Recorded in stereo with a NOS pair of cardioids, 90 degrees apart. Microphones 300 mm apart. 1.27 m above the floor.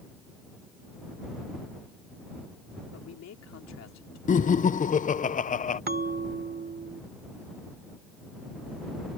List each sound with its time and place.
2.9 s a man speaking: 60° left
4.3 s laughter: 25° left
5.9 s a bell: 35° right